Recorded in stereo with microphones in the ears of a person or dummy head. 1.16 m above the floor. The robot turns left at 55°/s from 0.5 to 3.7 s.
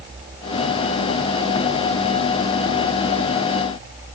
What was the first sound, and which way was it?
Only background noise.